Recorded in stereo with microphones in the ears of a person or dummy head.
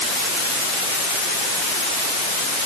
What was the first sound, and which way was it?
Only background noise.